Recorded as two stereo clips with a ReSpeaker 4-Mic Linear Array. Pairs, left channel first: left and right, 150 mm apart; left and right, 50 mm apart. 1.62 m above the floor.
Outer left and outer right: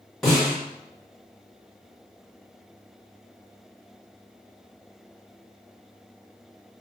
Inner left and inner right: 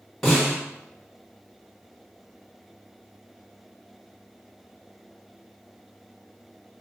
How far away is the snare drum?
About 1.7 m.